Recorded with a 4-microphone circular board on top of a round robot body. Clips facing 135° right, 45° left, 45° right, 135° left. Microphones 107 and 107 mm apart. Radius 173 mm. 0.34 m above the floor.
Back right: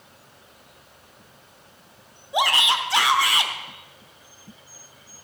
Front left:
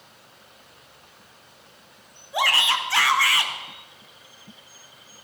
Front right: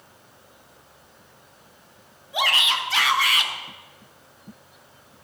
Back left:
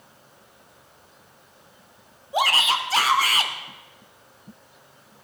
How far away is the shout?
About 1.6 m.